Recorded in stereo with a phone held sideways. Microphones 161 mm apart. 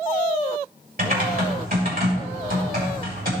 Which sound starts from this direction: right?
Typing on a keyboard, at 1.0 s.